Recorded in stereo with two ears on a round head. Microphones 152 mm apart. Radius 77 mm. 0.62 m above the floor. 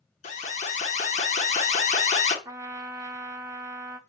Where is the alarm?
45° left (ahead or behind), 1.5 m.